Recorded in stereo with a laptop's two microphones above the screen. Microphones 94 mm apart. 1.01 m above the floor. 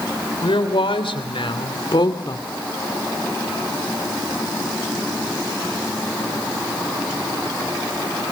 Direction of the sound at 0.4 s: 80° left.